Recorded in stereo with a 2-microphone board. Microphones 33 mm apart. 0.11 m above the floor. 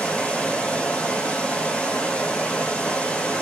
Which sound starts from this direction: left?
Running water, at 0.0 s.